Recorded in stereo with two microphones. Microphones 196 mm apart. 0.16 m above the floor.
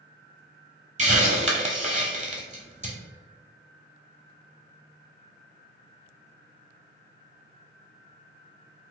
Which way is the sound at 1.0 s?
35° right (ahead or behind).